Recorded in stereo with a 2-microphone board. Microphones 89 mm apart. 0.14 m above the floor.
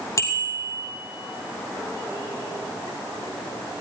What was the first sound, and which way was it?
A bicycle bell, 35° left (ahead or behind).